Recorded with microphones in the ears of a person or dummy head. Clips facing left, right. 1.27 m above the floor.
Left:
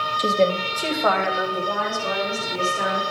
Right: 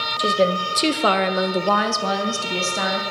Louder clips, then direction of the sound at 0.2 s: Even; centre (ahead or behind).